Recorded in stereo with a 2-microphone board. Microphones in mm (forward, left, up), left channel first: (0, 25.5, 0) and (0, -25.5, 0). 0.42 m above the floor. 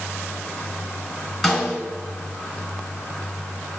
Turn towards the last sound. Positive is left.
turn(degrees=5)  # may be behind; listen again after turning